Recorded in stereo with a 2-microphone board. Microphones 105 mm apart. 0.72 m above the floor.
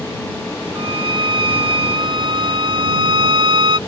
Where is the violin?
60° right (ahead or behind).